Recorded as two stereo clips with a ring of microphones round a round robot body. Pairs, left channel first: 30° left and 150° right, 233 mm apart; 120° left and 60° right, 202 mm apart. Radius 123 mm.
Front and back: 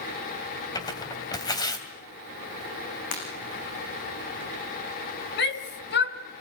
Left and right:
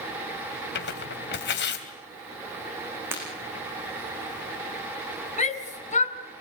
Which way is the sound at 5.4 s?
70° left.